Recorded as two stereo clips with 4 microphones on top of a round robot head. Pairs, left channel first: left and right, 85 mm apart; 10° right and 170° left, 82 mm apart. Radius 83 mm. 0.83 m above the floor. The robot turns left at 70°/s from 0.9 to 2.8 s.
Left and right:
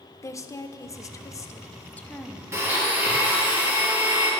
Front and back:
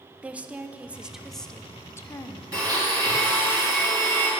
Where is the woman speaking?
105° left, 0.6 m; by 2.4 s straight ahead, 0.6 m.